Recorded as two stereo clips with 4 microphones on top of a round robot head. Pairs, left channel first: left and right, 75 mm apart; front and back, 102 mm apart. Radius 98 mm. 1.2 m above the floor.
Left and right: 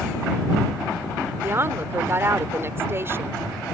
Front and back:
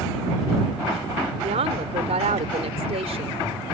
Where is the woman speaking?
145° right.